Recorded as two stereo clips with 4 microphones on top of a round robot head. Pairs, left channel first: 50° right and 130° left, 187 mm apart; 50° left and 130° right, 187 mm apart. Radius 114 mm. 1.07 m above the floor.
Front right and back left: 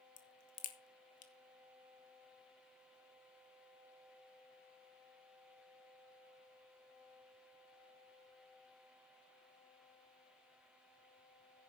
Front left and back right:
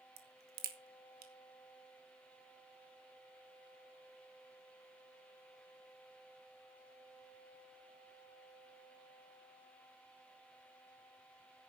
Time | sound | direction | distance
0.2 | a crack | 95° right | 2 m